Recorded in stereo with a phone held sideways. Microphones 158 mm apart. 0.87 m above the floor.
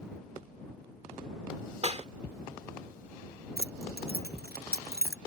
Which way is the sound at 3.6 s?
85° right.